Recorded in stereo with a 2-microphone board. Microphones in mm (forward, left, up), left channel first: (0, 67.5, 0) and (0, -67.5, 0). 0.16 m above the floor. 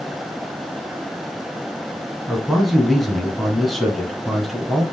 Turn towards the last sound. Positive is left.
turn(degrees=0)  # may be behind; listen again after turning